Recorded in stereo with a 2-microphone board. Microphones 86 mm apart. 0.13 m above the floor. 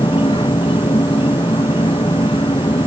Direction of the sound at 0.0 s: 80° left.